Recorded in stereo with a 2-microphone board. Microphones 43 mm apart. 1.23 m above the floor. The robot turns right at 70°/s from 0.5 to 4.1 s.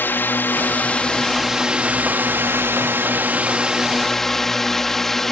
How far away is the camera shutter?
No camera shutter in this recording.